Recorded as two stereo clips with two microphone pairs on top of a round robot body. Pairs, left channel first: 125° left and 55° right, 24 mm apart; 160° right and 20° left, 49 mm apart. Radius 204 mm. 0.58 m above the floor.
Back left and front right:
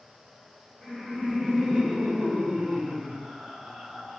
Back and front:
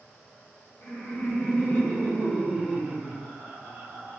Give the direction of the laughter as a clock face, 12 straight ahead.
4 o'clock.